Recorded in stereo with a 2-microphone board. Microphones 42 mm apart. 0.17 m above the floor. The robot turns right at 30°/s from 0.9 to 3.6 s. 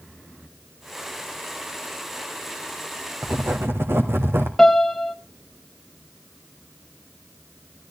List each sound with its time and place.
3.2 s writing: 65° right (ahead or behind), 1.9 m; by 4.5 s 75° right (ahead or behind), 1.9 m
4.6 s a piano: 5° left (ahead or behind), 0.9 m